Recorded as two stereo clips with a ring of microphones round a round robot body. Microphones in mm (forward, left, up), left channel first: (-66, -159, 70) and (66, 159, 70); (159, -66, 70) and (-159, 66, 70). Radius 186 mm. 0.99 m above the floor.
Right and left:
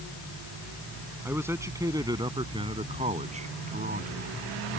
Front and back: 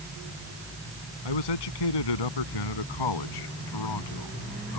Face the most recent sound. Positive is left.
turn(degrees=5)